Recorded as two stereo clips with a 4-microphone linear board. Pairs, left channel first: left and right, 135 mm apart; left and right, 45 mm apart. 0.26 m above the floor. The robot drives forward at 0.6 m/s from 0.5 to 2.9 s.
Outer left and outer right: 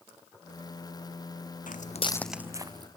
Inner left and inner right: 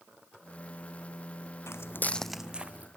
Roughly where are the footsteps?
Left.